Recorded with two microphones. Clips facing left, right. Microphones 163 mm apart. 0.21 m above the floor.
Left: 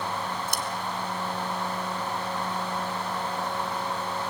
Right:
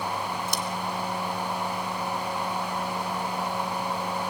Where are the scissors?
55° left (ahead or behind), 2.0 m.